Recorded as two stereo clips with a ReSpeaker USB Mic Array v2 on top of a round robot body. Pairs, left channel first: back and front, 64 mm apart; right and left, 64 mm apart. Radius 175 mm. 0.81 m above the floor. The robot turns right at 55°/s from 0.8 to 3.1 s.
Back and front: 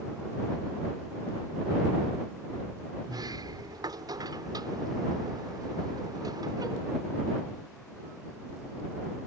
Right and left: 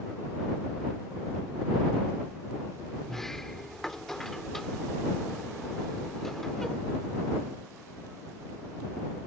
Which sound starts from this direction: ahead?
A sliding door, at 3.0 s.